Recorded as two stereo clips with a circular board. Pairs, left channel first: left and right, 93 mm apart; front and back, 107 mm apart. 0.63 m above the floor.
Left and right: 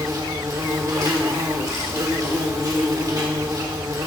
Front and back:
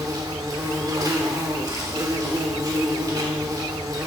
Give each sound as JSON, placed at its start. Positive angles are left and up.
{"t": 0.0, "sound": "an insect", "azimuth_deg": -130, "distance_m": 1.8}